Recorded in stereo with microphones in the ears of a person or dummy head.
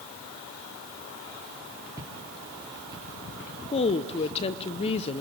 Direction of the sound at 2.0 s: 15° right (ahead or behind).